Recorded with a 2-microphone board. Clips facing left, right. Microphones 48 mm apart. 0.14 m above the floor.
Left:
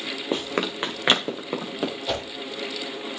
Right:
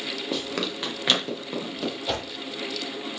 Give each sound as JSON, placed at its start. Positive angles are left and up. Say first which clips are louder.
{"t": 0.3, "sound": "running footsteps", "louder": "left 4 dB", "side_deg": 30, "distance_m": 1.2}
{"t": 2.1, "sound": "a whoosh", "louder": "even", "side_deg": 0, "distance_m": 1.8}